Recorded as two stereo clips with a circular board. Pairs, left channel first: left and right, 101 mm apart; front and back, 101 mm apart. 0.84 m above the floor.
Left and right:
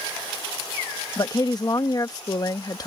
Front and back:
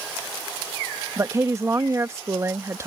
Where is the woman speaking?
130° left.